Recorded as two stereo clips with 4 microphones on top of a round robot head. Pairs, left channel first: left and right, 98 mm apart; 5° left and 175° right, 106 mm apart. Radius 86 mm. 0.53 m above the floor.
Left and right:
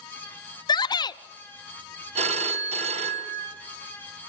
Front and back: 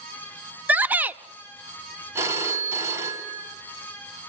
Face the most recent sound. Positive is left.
turn(degrees=-105)